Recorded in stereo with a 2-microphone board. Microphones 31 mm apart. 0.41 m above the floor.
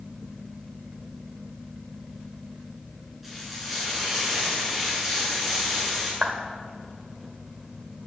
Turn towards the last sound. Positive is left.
turn(degrees=-35)  # may be behind; listen again after turning